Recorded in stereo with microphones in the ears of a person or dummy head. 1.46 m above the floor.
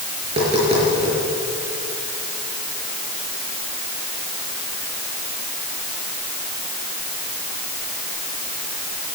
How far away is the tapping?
About 6 m.